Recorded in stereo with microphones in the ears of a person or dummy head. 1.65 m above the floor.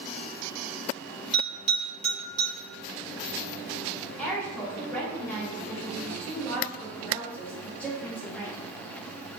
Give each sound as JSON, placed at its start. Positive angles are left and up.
{"t": 1.3, "sound": "a bell", "side_deg": 5, "distance_m": 1.5}
{"t": 4.2, "sound": "a woman speaking", "side_deg": 5, "distance_m": 1.6}